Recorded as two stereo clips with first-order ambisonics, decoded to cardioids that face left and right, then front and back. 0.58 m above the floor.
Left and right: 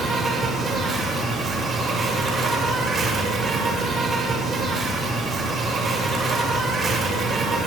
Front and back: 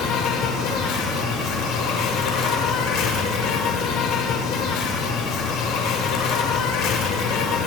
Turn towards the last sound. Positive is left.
turn(degrees=-25)